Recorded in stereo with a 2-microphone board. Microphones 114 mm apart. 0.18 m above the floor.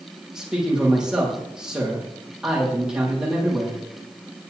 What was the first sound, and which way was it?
A man speaking, 5° right (ahead or behind).